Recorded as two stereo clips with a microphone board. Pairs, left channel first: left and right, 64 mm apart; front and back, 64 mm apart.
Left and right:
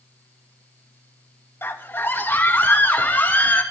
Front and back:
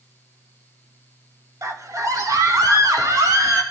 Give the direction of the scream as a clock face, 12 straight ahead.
7 o'clock.